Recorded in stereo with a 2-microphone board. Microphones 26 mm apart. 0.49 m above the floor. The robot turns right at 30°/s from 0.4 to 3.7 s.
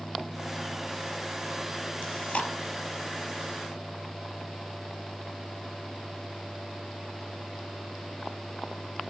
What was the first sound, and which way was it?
Chewing, 85° left.